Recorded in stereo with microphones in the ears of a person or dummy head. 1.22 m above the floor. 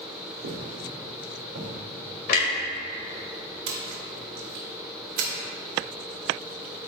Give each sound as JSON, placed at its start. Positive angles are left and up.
{"t": 0.4, "sound": "footsteps", "side_deg": -60, "distance_m": 2.5}
{"t": 2.3, "sound": "a clunk", "side_deg": 55, "distance_m": 2.0}
{"t": 3.7, "sound": "a splash", "side_deg": -85, "distance_m": 2.0}